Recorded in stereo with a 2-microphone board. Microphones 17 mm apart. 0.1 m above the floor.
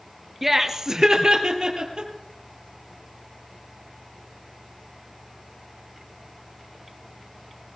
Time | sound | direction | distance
0.4 | laughter | 15° right (ahead or behind) | 1.3 m